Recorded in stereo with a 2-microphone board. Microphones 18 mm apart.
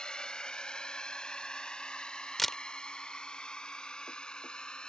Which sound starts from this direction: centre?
A camera shutter, at 2.4 s.